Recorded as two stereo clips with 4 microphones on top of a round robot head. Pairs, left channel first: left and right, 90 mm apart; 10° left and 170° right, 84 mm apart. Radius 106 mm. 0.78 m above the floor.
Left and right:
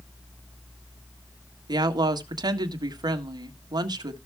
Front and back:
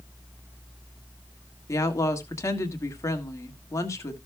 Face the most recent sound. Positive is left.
turn(degrees=-50)